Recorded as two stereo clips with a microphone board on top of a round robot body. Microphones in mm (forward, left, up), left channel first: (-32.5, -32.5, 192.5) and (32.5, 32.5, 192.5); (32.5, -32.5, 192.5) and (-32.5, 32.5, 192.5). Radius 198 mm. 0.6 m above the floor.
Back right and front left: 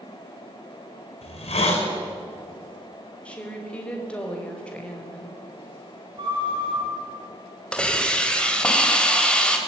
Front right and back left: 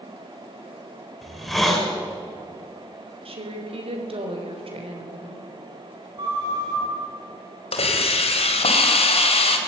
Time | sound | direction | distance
1.2 | a hiss | 135° right | 5.5 m
3.2 | a woman speaking | 145° left | 4.5 m
6.2 | a flute | 85° left | 6.5 m
7.7 | a hiss | 55° right | 3 m